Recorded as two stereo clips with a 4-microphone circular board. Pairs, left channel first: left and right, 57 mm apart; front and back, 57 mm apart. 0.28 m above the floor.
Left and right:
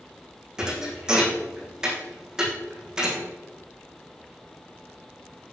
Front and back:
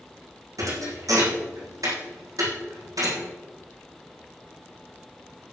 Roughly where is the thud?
Behind.